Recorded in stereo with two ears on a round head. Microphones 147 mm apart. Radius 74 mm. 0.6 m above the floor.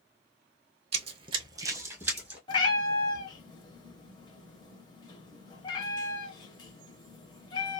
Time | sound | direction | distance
0.9 | running footsteps | 40° right (ahead or behind) | 0.7 m
2.5 | a cat meowing | 25° left (ahead or behind) | 0.8 m